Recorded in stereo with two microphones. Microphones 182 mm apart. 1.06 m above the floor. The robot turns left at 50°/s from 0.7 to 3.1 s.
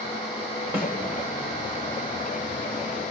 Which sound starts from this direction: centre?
A snare drum, at 0.7 s.